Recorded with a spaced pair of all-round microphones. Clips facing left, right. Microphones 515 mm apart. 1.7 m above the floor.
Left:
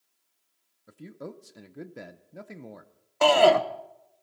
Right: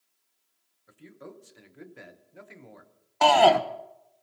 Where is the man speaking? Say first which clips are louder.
Left 5 dB; 60° left (ahead or behind), 0.8 m.